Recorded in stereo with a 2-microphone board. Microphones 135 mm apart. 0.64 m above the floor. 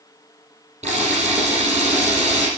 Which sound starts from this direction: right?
A camera shutter, at 0.8 s.